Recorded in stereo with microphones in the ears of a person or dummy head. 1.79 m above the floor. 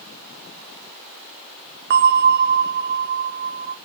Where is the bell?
60° right (ahead or behind), 0.7 m.